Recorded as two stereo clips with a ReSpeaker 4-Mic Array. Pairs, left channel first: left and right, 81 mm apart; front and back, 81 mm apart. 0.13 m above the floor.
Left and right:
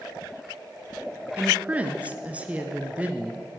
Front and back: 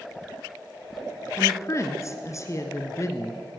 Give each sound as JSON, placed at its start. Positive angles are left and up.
{"t": 1.4, "sound": "a woman speaking", "azimuth_deg": -25, "distance_m": 1.5}